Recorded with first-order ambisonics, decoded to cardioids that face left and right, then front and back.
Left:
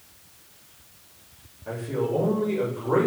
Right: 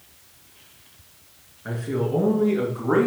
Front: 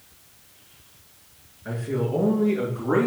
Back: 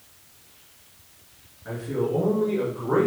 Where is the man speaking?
80° right, 3 m; by 3.1 s 65° right, 3 m.